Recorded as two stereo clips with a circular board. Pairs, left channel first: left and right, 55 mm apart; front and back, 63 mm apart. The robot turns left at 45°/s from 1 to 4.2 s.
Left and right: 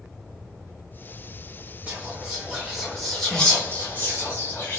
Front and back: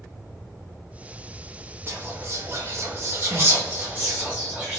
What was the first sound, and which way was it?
Whispering, 135° right.